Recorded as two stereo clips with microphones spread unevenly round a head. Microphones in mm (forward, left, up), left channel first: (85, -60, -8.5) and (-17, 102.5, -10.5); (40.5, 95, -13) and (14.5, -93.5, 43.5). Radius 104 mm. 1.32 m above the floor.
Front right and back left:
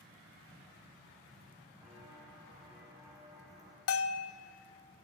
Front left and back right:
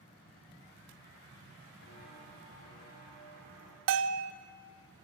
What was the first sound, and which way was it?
Footsteps, 40° left.